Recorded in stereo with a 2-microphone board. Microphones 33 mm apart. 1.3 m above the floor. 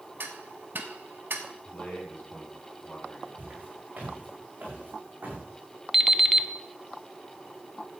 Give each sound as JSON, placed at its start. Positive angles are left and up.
{"t": 0.2, "sound": "ticking", "side_deg": -75, "distance_m": 1.5}
{"t": 1.6, "sound": "a man speaking", "side_deg": 55, "distance_m": 5.0}
{"t": 3.4, "sound": "footsteps", "side_deg": -55, "distance_m": 5.5}
{"t": 5.9, "sound": "an alarm clock", "side_deg": -5, "distance_m": 0.9}